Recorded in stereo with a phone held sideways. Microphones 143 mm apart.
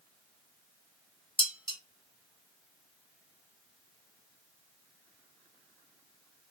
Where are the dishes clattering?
35° left (ahead or behind), 0.7 m.